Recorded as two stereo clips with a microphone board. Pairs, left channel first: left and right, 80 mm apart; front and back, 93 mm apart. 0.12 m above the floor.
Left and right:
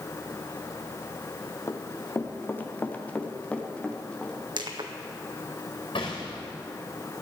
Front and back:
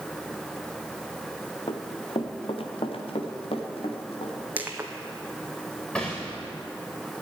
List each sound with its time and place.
1.7 s running footsteps: 35° left, 1.7 m; by 4.3 s 10° left, 3 m
4.6 s crushing: 105° right, 1.4 m
6.0 s a gunshot: 80° left, 3.5 m